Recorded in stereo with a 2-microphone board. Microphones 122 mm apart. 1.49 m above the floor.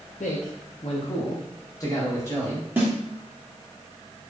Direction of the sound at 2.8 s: 15° right (ahead or behind).